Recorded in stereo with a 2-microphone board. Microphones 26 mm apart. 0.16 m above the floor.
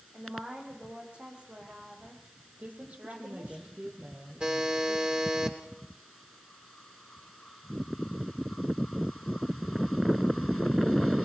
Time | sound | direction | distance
0.1 | a woman speaking | 50° right (ahead or behind) | 9.5 m
2.6 | a woman speaking | 70° right (ahead or behind) | 5 m
4.4 | a buzzer | 40° right (ahead or behind) | 7 m